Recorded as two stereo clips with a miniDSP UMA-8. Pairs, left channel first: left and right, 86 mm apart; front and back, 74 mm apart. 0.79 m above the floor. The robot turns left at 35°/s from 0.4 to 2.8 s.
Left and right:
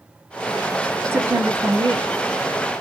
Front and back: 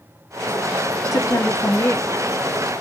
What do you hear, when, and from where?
1.1 s a woman speaking: 30° right, 0.9 m; by 2.8 s 90° right, 0.9 m